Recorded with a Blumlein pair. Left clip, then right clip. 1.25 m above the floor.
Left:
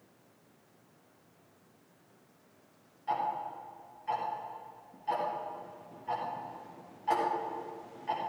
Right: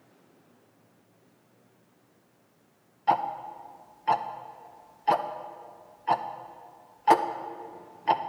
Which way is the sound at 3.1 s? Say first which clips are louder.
Right 7 dB; 35° right.